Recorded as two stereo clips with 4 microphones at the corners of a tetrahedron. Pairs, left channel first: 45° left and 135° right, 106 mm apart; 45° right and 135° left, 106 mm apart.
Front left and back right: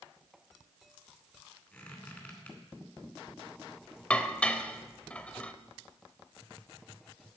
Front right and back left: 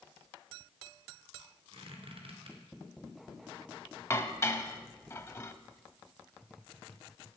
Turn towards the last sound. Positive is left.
turn(degrees=-20)